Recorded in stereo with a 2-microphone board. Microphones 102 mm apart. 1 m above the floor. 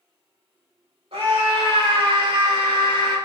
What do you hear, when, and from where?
1.1 s a scream: 65° right (ahead or behind), 4 m; by 3.2 s 55° right (ahead or behind), 5 m